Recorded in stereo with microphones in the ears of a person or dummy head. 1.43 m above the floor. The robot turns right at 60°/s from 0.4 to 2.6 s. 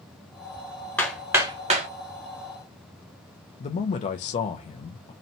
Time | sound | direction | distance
1.0 | hammering | 10° left (ahead or behind) | 1.1 m
3.6 | a man speaking | 40° left (ahead or behind) | 0.5 m